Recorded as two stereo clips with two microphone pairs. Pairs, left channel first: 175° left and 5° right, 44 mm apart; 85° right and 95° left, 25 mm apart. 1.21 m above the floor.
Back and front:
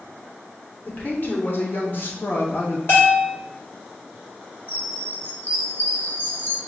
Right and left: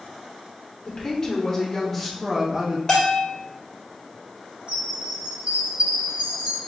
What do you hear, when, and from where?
0.8 s a woman speaking: 140° right, 1.3 m; by 2.8 s 150° left, 0.8 m
2.9 s a bell: 155° right, 1.8 m
4.7 s a chime: 135° left, 1.1 m